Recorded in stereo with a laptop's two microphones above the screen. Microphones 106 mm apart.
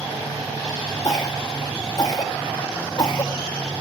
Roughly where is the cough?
Left.